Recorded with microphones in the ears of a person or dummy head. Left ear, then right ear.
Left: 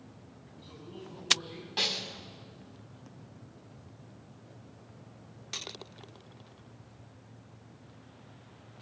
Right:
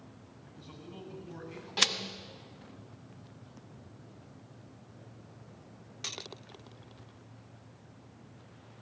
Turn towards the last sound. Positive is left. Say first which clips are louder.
# right 2 dB
turn(degrees=5)  # may be behind; listen again after turning